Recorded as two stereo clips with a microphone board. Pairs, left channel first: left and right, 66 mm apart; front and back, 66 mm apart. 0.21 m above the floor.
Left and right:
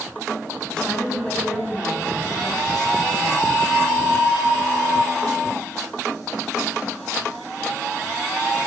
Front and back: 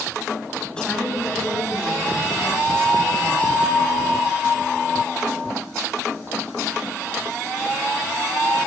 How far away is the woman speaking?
About 1.6 m.